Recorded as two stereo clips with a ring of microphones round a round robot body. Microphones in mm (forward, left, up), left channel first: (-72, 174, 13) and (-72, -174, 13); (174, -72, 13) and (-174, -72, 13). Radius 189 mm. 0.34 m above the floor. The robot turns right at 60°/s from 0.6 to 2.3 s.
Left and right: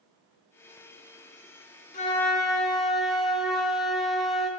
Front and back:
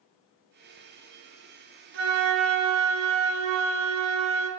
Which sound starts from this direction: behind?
A flute, at 1.9 s.